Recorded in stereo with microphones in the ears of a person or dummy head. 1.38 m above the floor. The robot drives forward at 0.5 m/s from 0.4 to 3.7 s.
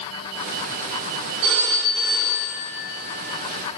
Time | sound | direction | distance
1.4 | a phone ringing | 70° right (ahead or behind) | 2 m